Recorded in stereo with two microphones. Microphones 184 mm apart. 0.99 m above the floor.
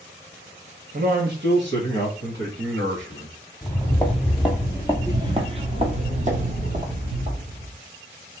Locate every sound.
0.9 s a man speaking: 50° right (ahead or behind), 0.8 m; by 3.4 s 75° right (ahead or behind), 2 m
3.6 s footsteps: 15° left (ahead or behind), 1.1 m; by 7.8 s 45° right (ahead or behind), 2 m